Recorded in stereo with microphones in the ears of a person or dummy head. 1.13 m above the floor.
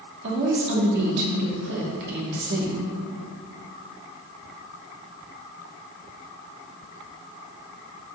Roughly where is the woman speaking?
Right.